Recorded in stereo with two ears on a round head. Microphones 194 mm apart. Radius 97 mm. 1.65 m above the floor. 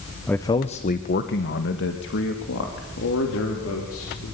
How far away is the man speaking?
About 0.9 m.